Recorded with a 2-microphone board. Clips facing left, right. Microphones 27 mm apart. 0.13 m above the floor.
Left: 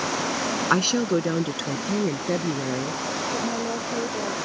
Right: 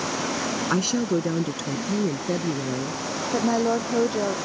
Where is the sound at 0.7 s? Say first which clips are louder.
Left 2 dB; 25° left (ahead or behind); by 3.0 s 20° left (ahead or behind).